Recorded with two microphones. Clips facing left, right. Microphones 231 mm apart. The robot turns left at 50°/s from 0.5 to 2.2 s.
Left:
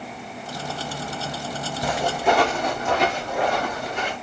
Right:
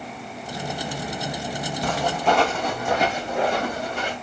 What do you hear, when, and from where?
1.8 s footsteps: 10° left (ahead or behind), 1.5 m; by 4.1 s 35° right (ahead or behind), 3 m